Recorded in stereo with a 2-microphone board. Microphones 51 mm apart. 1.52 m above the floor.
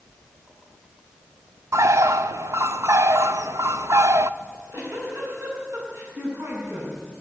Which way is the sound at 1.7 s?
70° right (ahead or behind).